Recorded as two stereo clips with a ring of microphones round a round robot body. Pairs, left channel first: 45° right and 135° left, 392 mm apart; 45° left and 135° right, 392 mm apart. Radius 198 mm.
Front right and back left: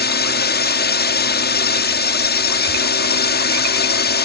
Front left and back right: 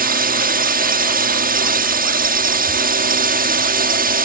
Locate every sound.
0.0 s a drone: 85° right